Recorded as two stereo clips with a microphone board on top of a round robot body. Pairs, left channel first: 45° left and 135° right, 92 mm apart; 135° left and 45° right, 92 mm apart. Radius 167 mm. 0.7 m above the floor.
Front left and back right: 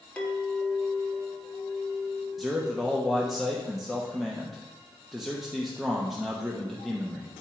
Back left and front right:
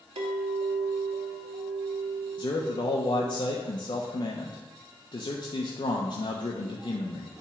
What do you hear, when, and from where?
0.2 s a clink: 35° right, 1.2 m
2.4 s a man speaking: 135° left, 1.2 m